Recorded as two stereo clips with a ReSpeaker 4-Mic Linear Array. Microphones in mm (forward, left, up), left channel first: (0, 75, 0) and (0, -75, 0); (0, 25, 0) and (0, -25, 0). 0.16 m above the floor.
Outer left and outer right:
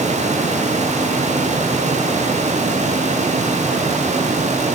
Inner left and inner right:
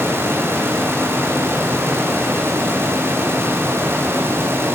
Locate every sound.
Only background noise.